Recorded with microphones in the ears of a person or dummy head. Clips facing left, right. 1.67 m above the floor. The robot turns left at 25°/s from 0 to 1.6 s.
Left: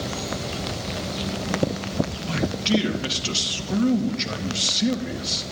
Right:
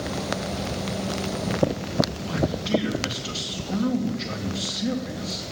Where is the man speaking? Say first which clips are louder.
Left 1 dB; 40° left (ahead or behind), 2.5 m.